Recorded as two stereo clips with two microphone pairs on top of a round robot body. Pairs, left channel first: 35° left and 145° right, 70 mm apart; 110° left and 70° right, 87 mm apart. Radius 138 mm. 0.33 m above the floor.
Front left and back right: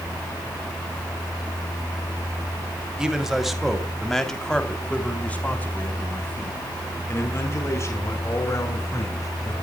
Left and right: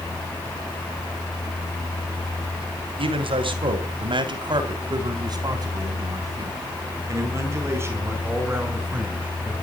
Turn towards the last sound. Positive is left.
turn(degrees=0)